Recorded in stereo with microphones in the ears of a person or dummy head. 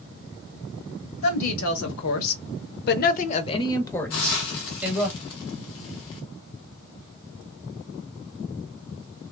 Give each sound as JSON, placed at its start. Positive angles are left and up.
{"t": 1.2, "sound": "a woman speaking", "side_deg": 75, "distance_m": 1.1}
{"t": 4.1, "sound": "a hiss", "side_deg": 60, "distance_m": 0.6}